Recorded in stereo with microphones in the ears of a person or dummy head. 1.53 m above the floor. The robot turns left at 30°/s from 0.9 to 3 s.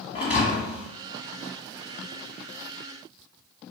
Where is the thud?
45° left (ahead or behind), 1.9 m.